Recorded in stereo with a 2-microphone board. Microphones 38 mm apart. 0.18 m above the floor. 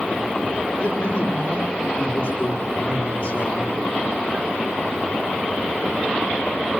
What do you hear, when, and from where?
0.8 s a man speaking: 35° left (ahead or behind), 8.5 m